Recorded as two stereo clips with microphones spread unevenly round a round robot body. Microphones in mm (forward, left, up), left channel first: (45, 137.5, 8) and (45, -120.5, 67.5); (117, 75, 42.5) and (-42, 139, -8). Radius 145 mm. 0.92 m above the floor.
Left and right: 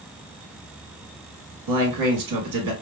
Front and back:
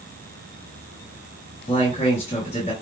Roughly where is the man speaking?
Right.